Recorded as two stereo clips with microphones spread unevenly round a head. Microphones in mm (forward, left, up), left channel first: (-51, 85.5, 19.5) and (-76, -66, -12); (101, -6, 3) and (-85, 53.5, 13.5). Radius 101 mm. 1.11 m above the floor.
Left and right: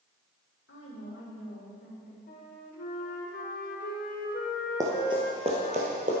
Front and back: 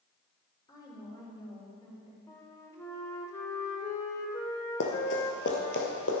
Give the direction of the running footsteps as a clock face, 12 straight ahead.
1 o'clock.